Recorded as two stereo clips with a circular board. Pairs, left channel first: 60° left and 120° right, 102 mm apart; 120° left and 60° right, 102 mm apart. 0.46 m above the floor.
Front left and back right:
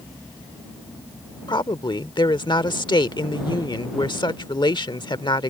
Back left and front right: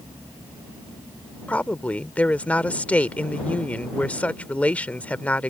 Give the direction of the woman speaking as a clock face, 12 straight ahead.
10 o'clock.